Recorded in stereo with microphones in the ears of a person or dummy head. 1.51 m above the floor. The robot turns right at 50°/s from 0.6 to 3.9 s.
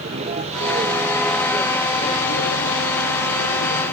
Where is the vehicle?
35° right; by 3.9 s 130° left.